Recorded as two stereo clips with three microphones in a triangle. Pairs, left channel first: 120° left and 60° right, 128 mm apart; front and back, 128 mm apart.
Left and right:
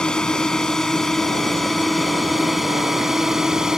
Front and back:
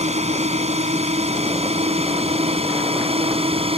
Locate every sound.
0.0 s a drone: 155° right; by 3.8 s 145° right